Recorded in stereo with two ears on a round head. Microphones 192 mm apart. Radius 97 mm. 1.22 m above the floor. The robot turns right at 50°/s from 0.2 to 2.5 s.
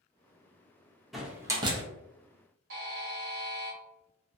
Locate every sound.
1.1 s a door slam: centre (ahead or behind), 0.6 m; by 1.8 s 25° right (ahead or behind), 0.6 m
2.7 s a buzzer: 60° right (ahead or behind), 1.2 m